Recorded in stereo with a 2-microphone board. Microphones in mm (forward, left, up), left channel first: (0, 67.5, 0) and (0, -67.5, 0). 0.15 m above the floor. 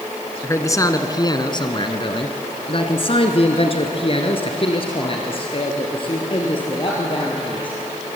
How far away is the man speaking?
About 1.4 m.